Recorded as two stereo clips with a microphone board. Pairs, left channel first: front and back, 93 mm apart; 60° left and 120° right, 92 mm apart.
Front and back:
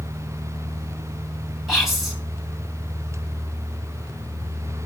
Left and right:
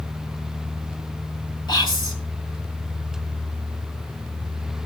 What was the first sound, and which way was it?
Whispering, 95° left.